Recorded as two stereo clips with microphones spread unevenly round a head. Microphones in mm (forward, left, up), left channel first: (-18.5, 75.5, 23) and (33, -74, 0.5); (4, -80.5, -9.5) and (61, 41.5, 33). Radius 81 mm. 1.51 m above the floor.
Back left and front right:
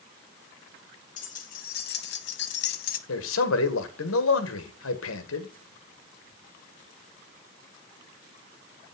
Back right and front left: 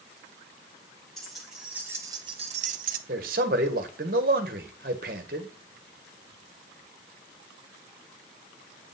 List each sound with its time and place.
1.2 s keys jangling: 155° left, 2.0 m; by 3.0 s 75° left, 1.0 m
3.1 s a man speaking: 110° left, 1.8 m